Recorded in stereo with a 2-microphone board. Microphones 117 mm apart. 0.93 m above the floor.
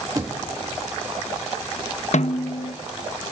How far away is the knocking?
About 1.5 m.